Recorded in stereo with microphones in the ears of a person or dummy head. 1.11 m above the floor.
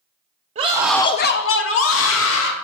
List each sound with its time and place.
0.6 s a scream: 30° right (ahead or behind), 0.7 m; by 2.5 s 65° left (ahead or behind), 2.0 m